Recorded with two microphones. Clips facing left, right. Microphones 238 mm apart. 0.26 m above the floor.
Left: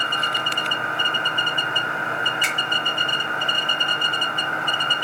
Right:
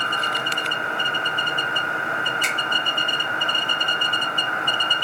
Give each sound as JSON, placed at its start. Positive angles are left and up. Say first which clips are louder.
{"t": 2.4, "sound": "a finger snap", "louder": "even", "side_deg": -45, "distance_m": 3.5}